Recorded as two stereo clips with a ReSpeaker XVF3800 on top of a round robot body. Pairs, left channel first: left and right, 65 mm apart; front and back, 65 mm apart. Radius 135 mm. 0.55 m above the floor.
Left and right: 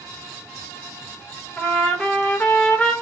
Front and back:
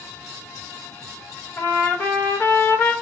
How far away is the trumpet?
About 1.2 m.